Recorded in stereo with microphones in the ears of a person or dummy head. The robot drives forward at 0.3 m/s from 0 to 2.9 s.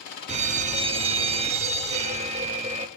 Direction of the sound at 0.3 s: 30° right (ahead or behind).